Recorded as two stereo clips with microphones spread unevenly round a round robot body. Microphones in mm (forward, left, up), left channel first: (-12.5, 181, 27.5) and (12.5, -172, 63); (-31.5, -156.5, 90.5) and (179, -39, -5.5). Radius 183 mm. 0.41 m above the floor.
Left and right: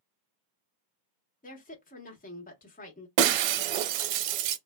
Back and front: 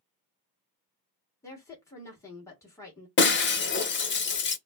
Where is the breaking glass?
95° right, 0.6 m.